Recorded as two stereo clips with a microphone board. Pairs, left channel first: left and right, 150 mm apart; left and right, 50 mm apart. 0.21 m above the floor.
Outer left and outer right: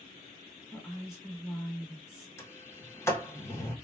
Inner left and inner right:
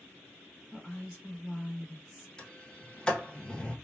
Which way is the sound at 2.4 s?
20° left (ahead or behind).